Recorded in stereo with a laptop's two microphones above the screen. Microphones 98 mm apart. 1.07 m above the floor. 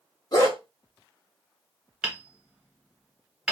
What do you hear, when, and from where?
0.3 s a dog barking: 45° left (ahead or behind), 1.2 m
2.0 s hammering: 5° right (ahead or behind), 1.1 m